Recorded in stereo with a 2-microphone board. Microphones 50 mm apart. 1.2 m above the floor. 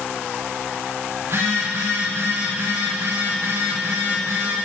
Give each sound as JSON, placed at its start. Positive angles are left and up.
{"t": 1.2, "sound": "a phone buzzing", "side_deg": -70, "distance_m": 2.5}